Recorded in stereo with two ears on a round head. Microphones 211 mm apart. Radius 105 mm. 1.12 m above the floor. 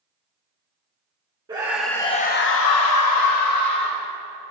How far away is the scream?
About 1.1 m.